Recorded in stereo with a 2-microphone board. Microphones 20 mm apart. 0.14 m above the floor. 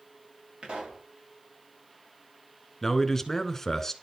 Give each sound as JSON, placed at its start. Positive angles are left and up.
{"t": 0.6, "sound": "a pop", "side_deg": -50, "distance_m": 6.5}
{"t": 2.8, "sound": "a man speaking", "side_deg": 20, "distance_m": 1.2}